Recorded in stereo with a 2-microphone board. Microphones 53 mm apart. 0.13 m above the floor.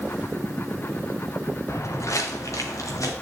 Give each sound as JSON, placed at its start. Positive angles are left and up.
{"t": 1.7, "sound": "footsteps", "side_deg": 55, "distance_m": 1.3}